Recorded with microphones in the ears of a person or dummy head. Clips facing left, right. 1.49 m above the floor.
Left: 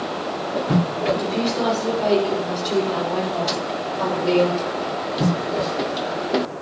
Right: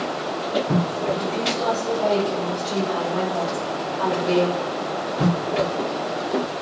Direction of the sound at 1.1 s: 70° left (ahead or behind).